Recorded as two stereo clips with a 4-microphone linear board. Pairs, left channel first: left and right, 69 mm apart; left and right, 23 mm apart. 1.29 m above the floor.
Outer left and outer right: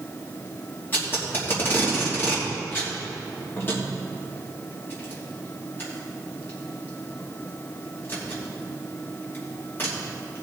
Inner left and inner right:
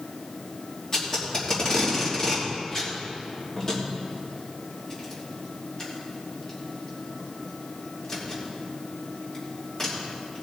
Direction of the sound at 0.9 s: 30° left (ahead or behind).